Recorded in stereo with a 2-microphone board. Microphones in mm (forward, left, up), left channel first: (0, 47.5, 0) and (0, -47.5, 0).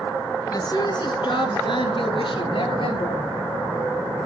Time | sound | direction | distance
0.5 | a woman speaking | 40° left (ahead or behind) | 1.4 m